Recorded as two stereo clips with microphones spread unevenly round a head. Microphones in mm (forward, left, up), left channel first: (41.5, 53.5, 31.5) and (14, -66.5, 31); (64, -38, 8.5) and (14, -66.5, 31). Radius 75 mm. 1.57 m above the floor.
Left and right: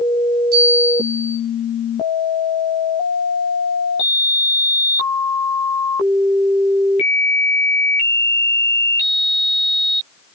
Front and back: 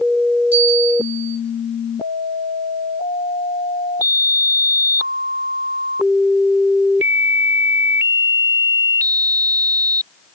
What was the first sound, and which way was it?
A bell, 105° right.